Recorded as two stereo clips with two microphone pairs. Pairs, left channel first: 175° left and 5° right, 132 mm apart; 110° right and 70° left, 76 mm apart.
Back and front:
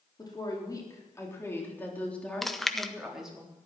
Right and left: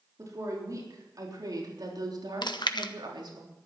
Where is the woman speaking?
115° left, 4 m; by 3.4 s 80° left, 3.5 m.